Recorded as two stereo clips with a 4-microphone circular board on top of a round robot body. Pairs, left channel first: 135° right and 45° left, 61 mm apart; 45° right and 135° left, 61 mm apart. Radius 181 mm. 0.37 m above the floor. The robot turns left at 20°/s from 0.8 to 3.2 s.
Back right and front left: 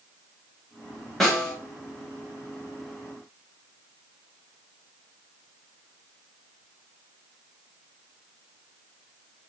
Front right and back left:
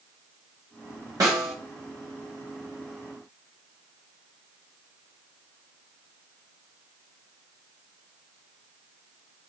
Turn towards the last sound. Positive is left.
turn(degrees=100)